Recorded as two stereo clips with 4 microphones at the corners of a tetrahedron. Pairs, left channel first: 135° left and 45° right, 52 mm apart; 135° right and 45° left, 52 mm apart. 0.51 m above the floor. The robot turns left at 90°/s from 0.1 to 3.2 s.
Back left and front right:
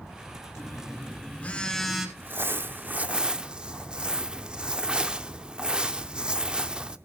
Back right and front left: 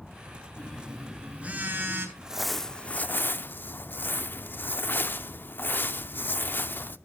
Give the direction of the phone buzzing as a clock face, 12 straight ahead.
6 o'clock.